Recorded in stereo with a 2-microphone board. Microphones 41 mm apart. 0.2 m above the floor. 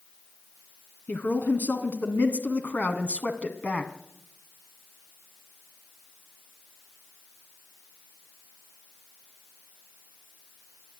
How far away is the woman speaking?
About 2.5 m.